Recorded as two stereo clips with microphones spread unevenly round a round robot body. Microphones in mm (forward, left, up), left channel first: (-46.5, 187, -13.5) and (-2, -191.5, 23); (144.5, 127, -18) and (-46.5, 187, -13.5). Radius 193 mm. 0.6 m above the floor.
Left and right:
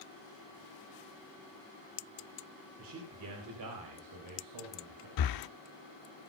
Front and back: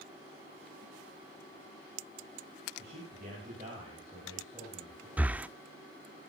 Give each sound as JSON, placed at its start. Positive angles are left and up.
{"t": 2.8, "sound": "a man speaking", "azimuth_deg": -140, "distance_m": 3.0}
{"t": 5.2, "sound": "breathing", "azimuth_deg": 80, "distance_m": 0.5}